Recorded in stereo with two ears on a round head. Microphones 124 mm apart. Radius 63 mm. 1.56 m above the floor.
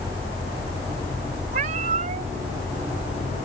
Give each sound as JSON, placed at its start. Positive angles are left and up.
{"t": 1.5, "sound": "a cat meowing", "side_deg": -55}